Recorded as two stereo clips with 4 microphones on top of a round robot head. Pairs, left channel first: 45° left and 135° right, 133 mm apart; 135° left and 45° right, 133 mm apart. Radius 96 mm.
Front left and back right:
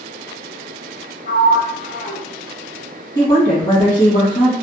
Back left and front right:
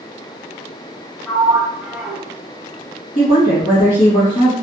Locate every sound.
1.3 s a sliding door: 40° left, 0.7 m
3.1 s a woman speaking: 105° left, 1.7 m